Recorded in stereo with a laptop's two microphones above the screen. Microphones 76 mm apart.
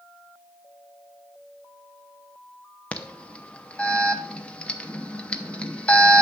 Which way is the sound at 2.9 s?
15° left (ahead or behind).